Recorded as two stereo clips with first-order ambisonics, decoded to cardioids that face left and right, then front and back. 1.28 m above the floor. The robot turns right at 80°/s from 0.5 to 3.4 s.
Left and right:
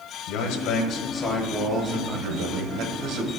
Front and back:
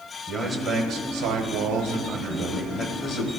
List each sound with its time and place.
0.3 s a man speaking: 105° left, 1.3 m; by 3.3 s 30° right, 1.3 m